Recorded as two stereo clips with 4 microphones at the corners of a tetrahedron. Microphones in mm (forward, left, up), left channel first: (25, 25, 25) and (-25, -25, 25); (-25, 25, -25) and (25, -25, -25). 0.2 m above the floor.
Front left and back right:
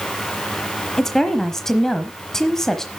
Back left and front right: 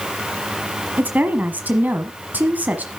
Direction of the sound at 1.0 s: 30° right.